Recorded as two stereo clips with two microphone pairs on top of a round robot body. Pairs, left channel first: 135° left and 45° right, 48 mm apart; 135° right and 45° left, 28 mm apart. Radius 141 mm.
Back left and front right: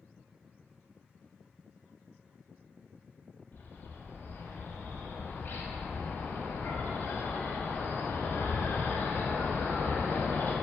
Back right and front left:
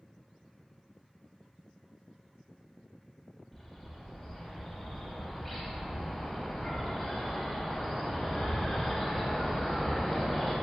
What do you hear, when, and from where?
3.5 s a bird: 145° left, 0.7 m